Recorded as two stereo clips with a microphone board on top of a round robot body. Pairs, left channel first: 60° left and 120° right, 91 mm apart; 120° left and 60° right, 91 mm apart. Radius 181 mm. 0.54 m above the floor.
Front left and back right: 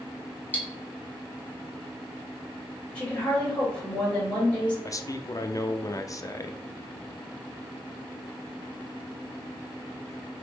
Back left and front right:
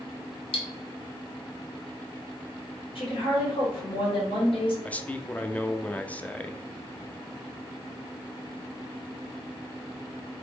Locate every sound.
0.5 s cutlery clinking: 130° left, 1.4 m
3.0 s a woman speaking: 140° left, 2.5 m
4.8 s a man speaking: 55° left, 0.7 m